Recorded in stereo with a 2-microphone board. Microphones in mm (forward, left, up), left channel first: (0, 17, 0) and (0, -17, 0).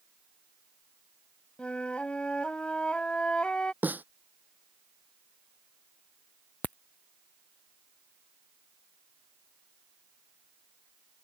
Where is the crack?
55° left (ahead or behind).